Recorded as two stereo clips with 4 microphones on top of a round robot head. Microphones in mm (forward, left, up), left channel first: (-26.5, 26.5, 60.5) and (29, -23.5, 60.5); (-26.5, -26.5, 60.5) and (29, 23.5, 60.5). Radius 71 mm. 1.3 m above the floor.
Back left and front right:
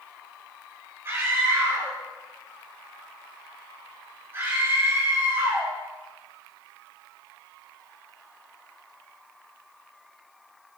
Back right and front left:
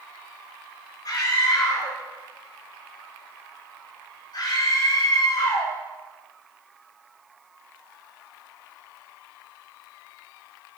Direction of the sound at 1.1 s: 100° right.